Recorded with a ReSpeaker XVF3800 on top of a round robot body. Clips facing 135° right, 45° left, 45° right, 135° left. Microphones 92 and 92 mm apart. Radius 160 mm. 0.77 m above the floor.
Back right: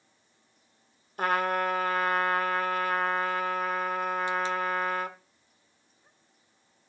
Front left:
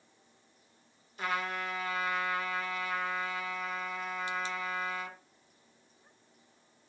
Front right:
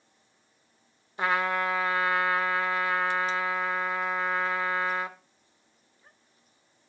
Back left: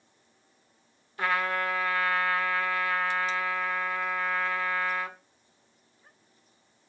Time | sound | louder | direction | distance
1.2 | a trumpet | back right 8 dB, front right 2 dB | 110° right | 1.2 m